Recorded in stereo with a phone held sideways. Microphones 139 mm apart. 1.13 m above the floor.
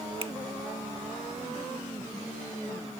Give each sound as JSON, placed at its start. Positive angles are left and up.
{"t": 0.2, "sound": "a finger snap", "side_deg": -40}